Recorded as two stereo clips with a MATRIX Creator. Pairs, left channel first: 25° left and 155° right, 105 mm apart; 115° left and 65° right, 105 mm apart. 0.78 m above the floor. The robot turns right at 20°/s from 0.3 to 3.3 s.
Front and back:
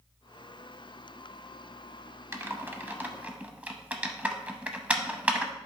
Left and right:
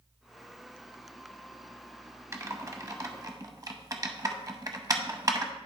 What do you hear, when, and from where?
2.3 s typing on a keyboard: 110° right, 0.7 m; by 5.5 s 90° right, 0.7 m